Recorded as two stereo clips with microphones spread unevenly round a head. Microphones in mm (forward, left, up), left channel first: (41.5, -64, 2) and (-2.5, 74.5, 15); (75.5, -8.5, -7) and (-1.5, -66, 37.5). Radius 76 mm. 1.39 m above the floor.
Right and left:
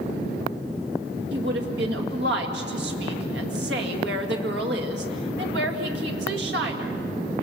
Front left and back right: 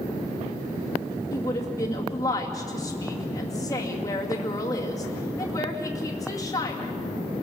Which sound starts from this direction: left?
A woman speaking, at 1.3 s.